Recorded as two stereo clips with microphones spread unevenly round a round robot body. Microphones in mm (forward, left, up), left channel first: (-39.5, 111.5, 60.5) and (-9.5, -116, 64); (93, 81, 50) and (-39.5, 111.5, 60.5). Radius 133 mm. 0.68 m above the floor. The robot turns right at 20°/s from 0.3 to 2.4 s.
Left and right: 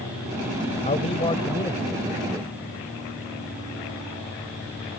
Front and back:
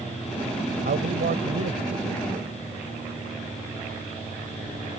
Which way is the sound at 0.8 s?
160° left.